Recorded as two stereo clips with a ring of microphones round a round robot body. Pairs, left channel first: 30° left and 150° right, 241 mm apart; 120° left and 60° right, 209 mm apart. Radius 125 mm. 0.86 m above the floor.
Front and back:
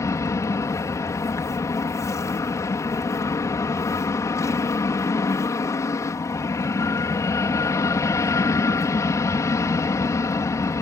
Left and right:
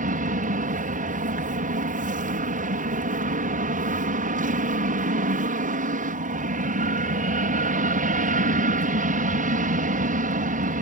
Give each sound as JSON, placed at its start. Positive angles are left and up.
{"t": 0.0, "sound": "an aircraft", "azimuth_deg": -40}